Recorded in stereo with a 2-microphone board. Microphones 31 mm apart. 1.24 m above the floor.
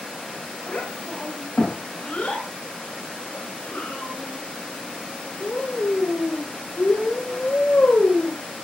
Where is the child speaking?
40° left (ahead or behind), 5 m; by 8.4 s 75° left (ahead or behind), 3.5 m.